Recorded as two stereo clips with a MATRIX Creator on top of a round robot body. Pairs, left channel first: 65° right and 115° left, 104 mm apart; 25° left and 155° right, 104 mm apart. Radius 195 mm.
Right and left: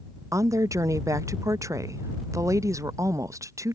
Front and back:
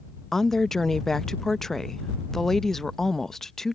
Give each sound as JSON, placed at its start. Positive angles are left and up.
{"t": 0.3, "sound": "a woman speaking", "azimuth_deg": 105}